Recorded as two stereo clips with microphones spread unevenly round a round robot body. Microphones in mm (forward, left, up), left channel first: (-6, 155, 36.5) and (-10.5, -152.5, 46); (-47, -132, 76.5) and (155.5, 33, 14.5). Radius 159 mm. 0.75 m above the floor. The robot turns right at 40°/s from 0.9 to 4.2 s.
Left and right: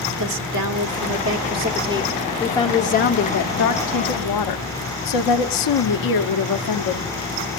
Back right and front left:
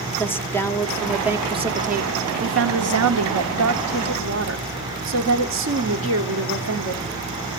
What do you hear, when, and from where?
0.2 s a woman speaking: 55° right, 1.5 m; by 7.1 s 75° left, 1.5 m